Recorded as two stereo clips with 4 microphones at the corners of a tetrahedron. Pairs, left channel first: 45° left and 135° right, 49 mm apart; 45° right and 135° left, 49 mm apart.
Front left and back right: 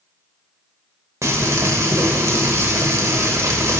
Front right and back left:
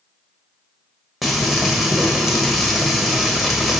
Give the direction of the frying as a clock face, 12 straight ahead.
4 o'clock.